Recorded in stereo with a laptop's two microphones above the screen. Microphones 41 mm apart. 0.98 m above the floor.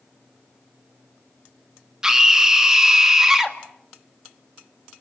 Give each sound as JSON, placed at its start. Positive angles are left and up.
{"t": 2.0, "sound": "a scream", "side_deg": -15, "distance_m": 2.0}